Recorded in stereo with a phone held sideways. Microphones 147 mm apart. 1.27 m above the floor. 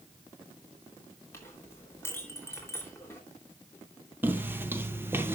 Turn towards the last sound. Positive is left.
turn(degrees=-15)  # may be behind; listen again after turning